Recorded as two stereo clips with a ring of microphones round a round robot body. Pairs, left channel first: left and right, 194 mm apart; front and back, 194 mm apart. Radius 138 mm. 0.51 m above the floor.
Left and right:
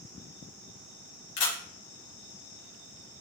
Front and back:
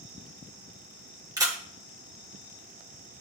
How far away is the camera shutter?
About 3 m.